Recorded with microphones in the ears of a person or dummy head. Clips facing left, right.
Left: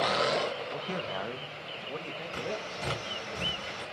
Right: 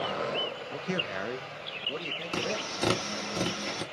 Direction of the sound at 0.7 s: 20° right (ahead or behind).